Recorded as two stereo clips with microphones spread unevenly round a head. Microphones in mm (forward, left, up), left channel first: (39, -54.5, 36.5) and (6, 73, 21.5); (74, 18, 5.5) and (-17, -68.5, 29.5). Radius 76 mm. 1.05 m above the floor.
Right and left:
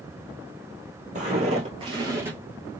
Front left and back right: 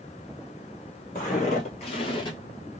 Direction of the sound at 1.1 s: 80° left.